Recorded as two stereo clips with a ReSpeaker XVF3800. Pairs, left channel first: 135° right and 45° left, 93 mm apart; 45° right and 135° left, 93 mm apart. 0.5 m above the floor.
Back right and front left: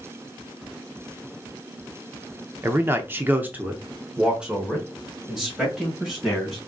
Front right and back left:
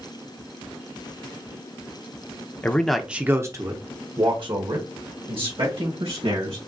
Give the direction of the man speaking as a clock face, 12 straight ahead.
12 o'clock.